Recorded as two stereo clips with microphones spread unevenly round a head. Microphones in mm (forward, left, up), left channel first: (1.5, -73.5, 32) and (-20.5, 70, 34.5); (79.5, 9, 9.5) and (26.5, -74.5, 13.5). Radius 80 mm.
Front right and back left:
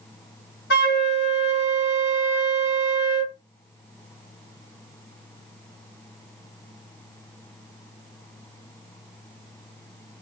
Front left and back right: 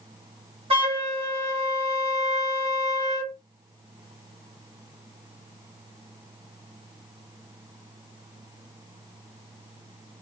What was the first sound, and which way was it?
A flute, 95° right.